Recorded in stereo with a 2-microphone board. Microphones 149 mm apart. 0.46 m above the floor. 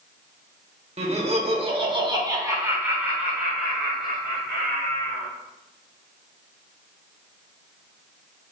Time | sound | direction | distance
1.0 | laughter | 45° right (ahead or behind) | 1.1 m